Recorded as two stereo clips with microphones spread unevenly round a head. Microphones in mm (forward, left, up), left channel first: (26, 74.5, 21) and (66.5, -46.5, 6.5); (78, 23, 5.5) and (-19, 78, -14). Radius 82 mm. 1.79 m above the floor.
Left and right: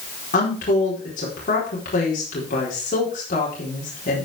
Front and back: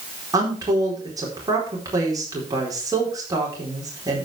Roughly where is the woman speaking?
Left.